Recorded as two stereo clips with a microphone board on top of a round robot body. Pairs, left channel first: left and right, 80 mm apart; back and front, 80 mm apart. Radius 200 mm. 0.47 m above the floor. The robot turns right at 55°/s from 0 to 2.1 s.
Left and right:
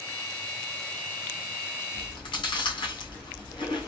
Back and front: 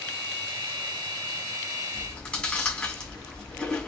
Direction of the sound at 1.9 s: 95° left.